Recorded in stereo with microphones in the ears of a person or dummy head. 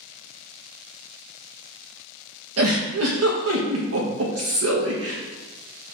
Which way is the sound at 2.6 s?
80° right.